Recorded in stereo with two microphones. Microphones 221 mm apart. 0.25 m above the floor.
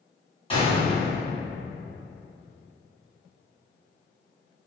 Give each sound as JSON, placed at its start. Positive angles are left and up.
{"t": 0.5, "sound": "a gunshot", "side_deg": 25, "distance_m": 2.0}